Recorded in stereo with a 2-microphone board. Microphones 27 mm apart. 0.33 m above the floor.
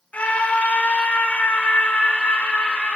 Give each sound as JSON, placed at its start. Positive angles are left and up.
{"t": 0.1, "sound": "a scream", "side_deg": 60, "distance_m": 3.5}